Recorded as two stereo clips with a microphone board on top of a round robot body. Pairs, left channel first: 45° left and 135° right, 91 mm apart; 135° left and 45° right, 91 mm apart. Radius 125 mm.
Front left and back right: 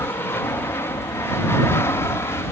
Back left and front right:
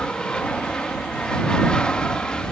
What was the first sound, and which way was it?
An aircraft, 65° left.